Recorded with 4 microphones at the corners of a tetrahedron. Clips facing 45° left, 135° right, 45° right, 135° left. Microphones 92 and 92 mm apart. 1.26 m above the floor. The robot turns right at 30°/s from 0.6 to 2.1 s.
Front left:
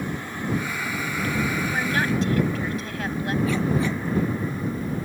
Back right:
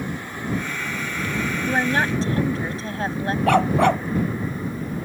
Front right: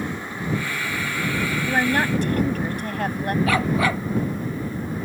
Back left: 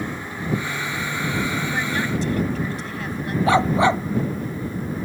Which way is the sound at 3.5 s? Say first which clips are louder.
Back right 11 dB, back left 7 dB; 160° right.